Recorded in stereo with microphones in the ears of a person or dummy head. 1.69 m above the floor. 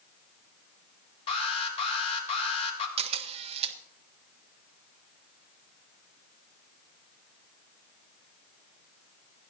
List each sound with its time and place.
1.3 s an alarm: 30° left (ahead or behind), 3.5 m
3.0 s a camera shutter: 35° right (ahead or behind), 1.4 m